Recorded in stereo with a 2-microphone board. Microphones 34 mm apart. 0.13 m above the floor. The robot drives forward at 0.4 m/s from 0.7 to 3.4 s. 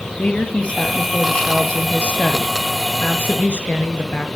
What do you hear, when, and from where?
0.2 s a woman speaking: 35° left (ahead or behind), 2.5 m; by 4.3 s 50° left (ahead or behind), 2 m